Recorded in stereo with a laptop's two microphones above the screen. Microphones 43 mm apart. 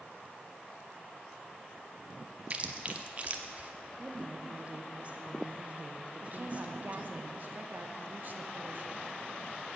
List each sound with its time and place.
2.5 s chewing: 35° right (ahead or behind), 0.7 m
4.0 s a woman speaking: 30° right (ahead or behind), 0.5 m
6.2 s a woman speaking: 45° right (ahead or behind), 0.6 m